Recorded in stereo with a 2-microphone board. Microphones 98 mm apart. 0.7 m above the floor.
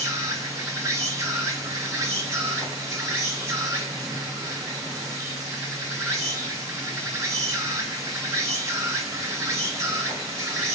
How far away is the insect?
About 1.6 m.